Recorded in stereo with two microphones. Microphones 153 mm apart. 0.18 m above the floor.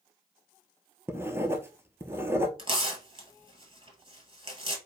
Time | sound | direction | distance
1.1 | writing | 15° right (ahead or behind) | 0.7 m
2.6 | tearing paper | 35° right (ahead or behind) | 1.7 m